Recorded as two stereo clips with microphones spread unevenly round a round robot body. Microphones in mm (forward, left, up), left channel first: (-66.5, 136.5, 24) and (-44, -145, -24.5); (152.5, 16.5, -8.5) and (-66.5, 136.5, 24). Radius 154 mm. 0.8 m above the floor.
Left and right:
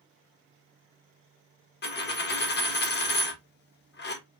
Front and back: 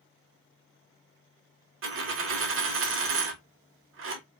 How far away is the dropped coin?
About 0.6 m.